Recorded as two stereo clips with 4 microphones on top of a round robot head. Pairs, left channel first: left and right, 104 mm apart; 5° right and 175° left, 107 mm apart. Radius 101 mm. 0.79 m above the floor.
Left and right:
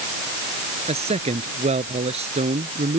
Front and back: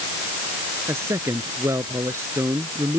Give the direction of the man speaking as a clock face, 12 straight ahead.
4 o'clock.